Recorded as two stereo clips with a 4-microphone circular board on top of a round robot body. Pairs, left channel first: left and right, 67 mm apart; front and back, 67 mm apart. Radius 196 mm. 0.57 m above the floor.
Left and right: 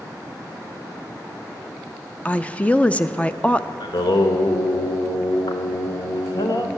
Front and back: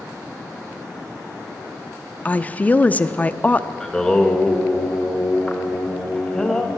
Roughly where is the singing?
Left.